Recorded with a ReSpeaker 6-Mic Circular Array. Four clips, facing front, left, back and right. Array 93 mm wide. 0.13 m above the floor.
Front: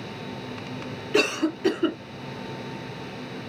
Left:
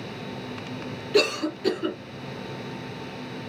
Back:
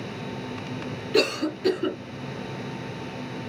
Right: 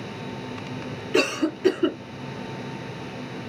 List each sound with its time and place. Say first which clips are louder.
1.1 s a cough: even, even; 50° right, 1.2 m